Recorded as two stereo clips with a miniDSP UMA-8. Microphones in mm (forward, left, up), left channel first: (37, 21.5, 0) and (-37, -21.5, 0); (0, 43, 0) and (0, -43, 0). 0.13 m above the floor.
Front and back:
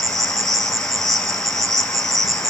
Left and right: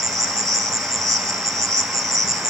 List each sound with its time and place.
0.0 s an insect: 120° right, 0.9 m